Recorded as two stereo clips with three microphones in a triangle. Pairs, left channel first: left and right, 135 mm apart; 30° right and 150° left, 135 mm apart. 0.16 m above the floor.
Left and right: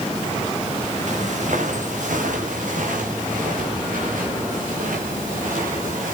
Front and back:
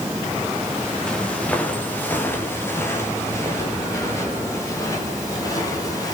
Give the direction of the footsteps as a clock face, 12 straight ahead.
4 o'clock.